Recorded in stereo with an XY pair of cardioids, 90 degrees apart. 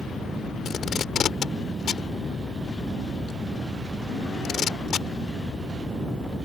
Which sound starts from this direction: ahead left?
Tape being pulled, at 0.7 s.